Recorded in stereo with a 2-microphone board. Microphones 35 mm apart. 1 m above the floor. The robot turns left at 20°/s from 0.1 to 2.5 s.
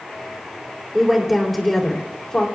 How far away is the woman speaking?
About 3 m.